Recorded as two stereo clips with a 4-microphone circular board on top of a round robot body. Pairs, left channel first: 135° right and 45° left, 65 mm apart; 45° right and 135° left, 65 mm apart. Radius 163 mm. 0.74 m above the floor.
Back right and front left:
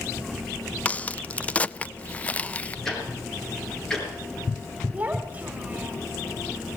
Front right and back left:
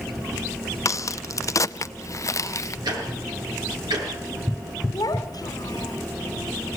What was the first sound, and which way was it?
A crack, 70° right.